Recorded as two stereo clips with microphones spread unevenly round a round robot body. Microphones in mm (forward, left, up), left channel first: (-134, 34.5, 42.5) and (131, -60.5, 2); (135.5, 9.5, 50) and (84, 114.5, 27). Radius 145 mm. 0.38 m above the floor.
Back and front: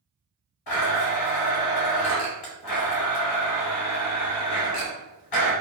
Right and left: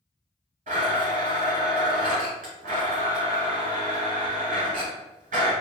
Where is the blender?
145° left, 1.5 m.